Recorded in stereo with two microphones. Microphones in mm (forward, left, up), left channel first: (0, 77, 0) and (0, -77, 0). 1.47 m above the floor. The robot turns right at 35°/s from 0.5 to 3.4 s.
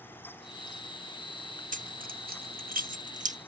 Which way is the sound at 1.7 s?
60° right (ahead or behind).